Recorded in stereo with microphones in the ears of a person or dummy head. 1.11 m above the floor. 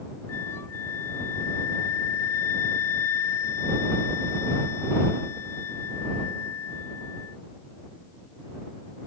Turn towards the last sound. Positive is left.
turn(degrees=15)  # may be behind; listen again after turning